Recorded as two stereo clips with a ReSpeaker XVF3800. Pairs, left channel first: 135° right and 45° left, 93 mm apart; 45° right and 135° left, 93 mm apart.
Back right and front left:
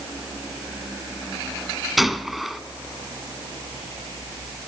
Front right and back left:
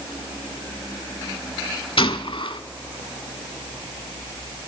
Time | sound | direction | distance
2.0 | a gunshot | 45° right | 0.9 m